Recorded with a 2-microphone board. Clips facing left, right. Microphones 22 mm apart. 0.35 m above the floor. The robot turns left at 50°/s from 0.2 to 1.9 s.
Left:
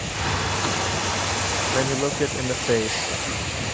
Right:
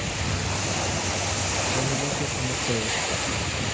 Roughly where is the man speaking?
Left.